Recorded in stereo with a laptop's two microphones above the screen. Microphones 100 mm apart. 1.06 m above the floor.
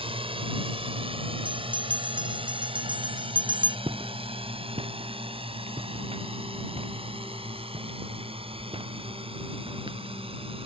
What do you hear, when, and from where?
0.0 s a drone: 65° right (ahead or behind); by 10.7 s 70° right (ahead or behind)
1.4 s a bell: 55° right (ahead or behind)
3.9 s footsteps: 60° right (ahead or behind); by 10.6 s 50° right (ahead or behind)